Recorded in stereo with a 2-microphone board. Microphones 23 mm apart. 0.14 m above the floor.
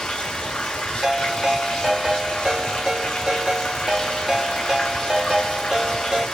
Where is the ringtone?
25° right (ahead or behind), 1.9 m.